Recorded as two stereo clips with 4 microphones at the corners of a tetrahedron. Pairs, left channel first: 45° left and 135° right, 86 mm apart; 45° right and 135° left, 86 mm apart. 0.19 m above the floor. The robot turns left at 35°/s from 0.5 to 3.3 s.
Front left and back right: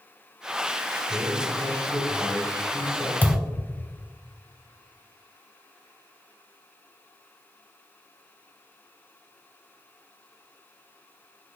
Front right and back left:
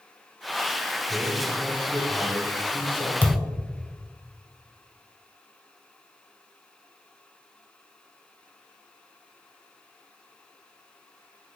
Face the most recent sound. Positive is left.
turn(degrees=-5)